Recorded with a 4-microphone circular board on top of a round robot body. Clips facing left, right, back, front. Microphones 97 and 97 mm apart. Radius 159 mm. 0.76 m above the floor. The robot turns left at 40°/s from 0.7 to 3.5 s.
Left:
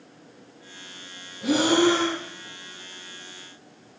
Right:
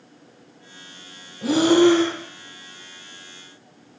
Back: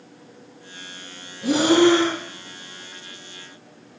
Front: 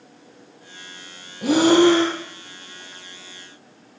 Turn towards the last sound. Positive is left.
turn(degrees=-115)